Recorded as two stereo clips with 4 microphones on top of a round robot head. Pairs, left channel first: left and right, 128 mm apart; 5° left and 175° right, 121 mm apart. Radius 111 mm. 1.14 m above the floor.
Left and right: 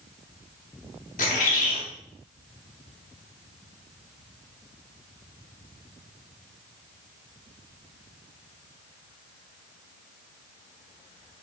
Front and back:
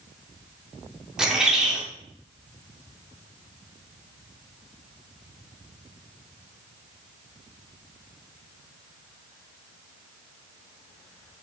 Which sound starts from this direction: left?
A bird, at 1.2 s.